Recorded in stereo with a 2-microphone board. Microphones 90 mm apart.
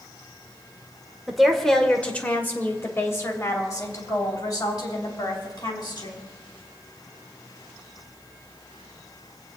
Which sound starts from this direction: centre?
A woman speaking, at 1.3 s.